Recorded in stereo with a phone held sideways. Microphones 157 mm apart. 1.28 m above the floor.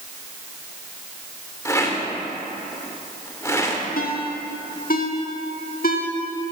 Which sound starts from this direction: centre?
A rattle, at 1.6 s.